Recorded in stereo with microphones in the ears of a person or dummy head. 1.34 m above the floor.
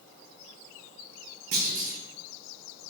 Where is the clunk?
45° right (ahead or behind), 0.7 m.